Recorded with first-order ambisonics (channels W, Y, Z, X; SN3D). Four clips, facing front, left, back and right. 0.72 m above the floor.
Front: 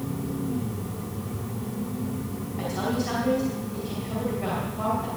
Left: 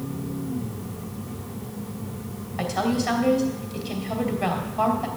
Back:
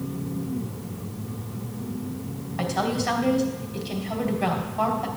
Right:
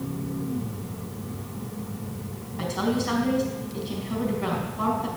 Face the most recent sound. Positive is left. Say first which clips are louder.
# left 2 dB, back 3 dB
turn(degrees=125)